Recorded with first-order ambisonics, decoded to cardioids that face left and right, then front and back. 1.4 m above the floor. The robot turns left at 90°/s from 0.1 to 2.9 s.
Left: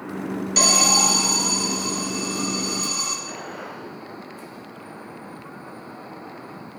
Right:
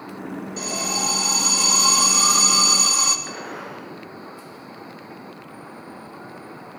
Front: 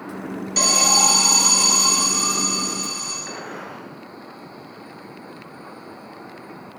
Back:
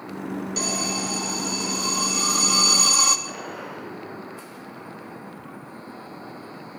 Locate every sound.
0.6 s an alarm: 70° left, 2 m; by 3.2 s 140° right, 2 m
3.3 s a gunshot: 50° right, 5.5 m